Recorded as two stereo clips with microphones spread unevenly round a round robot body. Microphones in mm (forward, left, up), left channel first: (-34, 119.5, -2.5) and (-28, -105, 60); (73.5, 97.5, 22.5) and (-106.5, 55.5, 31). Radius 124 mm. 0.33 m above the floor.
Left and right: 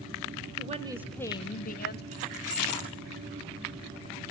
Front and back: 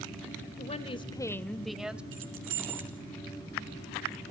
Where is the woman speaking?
25° right, 1.1 m; by 2.0 s 110° left, 1.6 m.